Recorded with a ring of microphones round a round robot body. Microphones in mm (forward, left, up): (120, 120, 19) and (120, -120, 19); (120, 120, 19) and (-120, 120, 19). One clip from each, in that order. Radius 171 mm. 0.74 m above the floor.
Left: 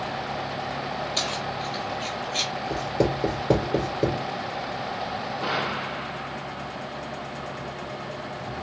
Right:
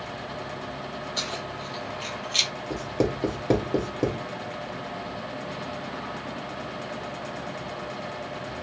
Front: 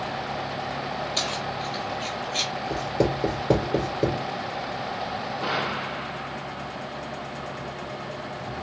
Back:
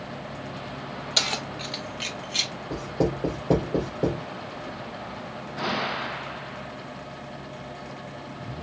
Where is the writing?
35° right, 2 m.